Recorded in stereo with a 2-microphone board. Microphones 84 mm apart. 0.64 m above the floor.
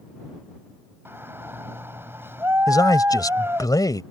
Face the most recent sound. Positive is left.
turn(degrees=55)  # may be behind; listen again after turning